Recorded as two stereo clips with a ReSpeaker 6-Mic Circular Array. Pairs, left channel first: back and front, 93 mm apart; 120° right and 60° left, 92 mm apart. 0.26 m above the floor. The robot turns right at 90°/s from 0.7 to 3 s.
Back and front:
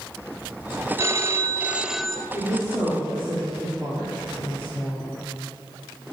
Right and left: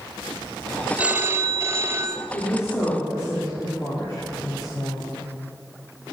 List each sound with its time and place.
1.0 s a phone ringing: 5° right, 0.8 m; by 2.2 s 110° left, 0.8 m
2.3 s a woman speaking: 125° right, 4.5 m; by 5.1 s 65° right, 4.5 m